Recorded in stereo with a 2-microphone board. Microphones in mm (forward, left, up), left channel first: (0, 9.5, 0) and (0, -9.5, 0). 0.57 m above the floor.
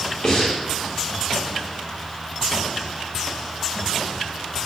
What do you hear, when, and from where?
0.2 s breathing: 45° left (ahead or behind), 1.0 m